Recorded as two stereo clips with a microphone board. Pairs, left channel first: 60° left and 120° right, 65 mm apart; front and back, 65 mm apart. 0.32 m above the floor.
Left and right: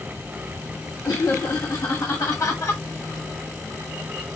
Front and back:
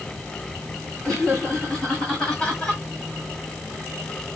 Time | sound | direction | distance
1.0 | laughter | 80° left | 2.5 m